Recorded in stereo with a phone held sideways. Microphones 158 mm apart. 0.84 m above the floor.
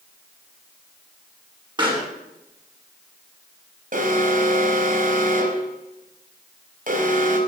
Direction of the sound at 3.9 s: 60° right (ahead or behind).